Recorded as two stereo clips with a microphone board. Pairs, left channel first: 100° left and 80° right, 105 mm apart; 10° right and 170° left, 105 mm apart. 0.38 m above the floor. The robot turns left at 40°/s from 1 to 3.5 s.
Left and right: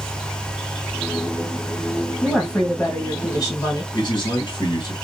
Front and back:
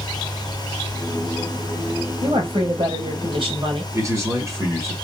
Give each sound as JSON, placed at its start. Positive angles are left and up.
{"t": 2.2, "sound": "a woman speaking", "azimuth_deg": -165, "distance_m": 2.0}
{"t": 3.9, "sound": "a man speaking", "azimuth_deg": 120, "distance_m": 2.0}